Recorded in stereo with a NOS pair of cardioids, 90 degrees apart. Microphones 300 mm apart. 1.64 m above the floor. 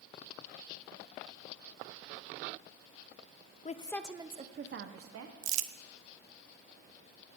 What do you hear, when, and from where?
3.6 s a woman speaking: 25° left, 0.7 m; by 5.4 s 55° right, 1.3 m
5.4 s crumpling: 65° right, 0.6 m